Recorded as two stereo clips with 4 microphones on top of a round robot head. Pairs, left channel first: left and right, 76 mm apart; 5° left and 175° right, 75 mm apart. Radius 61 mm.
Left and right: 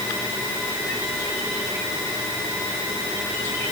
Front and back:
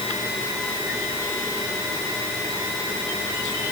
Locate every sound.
Only background noise.